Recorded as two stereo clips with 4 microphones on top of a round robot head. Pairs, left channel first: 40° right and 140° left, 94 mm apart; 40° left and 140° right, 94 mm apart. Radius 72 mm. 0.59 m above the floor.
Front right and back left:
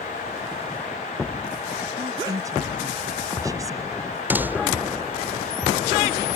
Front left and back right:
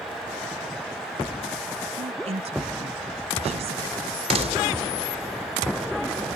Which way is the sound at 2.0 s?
160° right.